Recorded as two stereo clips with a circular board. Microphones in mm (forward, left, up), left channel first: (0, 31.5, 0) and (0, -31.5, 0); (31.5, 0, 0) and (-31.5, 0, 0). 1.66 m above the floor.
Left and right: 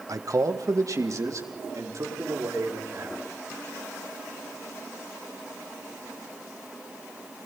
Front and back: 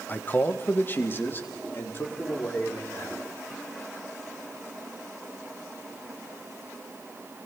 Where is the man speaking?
60° right, 1.3 m; by 3.2 s 55° right, 6 m.